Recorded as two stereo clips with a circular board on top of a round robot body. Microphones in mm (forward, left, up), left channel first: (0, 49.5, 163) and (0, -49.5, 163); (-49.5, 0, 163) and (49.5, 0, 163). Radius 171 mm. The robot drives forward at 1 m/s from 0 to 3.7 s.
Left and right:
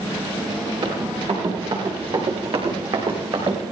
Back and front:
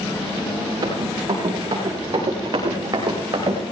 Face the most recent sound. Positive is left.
turn(degrees=-55)